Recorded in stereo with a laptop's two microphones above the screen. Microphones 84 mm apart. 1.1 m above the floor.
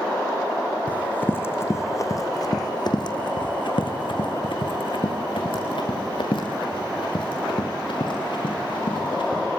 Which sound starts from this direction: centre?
Running footsteps, at 0.9 s.